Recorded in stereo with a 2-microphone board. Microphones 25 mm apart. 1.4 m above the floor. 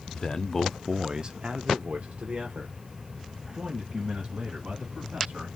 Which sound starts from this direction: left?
A man speaking, at 0.1 s.